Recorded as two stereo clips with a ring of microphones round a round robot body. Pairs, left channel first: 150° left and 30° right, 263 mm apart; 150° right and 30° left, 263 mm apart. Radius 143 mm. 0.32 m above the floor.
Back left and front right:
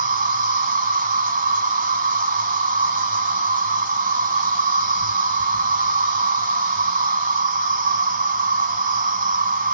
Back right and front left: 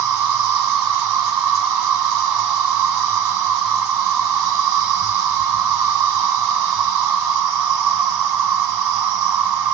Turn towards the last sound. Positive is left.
turn(degrees=30)